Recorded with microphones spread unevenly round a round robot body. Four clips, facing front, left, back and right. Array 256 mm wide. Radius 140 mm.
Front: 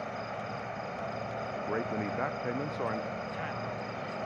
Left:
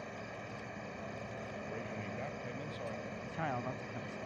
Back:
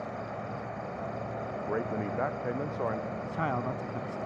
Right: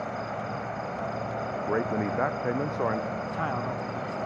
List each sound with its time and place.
0.0 s an insect: 75° right
1.6 s a man speaking: 75° right
3.2 s a man speaking: 165° right